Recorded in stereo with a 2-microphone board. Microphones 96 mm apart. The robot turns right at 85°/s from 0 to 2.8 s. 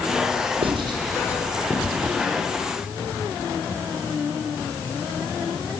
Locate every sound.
0.6 s writing: 75° right (ahead or behind), 4.5 m; by 2.1 s 50° left (ahead or behind), 4.5 m